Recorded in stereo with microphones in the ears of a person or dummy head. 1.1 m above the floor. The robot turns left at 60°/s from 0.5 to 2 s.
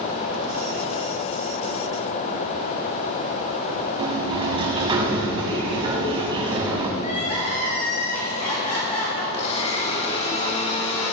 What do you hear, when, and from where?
4.0 s a sliding door: 30° right (ahead or behind), 1.4 m
7.0 s crying: 40° left (ahead or behind), 3 m
9.3 s a blender: 35° left (ahead or behind), 1.9 m